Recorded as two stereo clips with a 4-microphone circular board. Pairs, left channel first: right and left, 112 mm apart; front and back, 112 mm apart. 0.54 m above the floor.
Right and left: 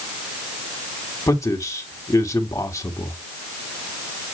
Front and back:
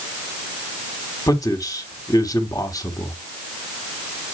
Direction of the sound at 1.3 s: 40° right.